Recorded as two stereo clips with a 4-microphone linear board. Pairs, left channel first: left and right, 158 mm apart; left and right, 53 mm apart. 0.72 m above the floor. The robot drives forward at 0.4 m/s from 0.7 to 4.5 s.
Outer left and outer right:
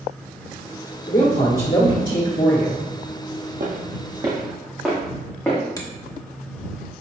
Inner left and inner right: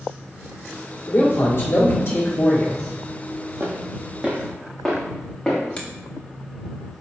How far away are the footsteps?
About 1.3 m.